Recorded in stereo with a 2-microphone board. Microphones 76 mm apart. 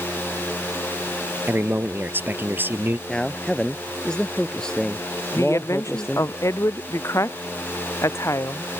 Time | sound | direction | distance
1.5 | a man speaking | 30° right (ahead or behind) | ?
3.1 | a man speaking | 10° left (ahead or behind) | ?
5.3 | a woman speaking | 40° left (ahead or behind) | ?